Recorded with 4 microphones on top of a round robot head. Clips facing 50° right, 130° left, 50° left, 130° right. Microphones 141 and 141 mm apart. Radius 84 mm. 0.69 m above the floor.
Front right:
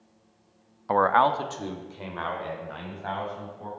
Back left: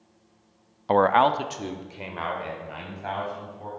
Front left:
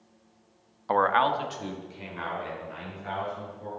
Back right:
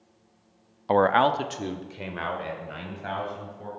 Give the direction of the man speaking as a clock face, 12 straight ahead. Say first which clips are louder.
Back left 2 dB, back right 3 dB; 6 o'clock.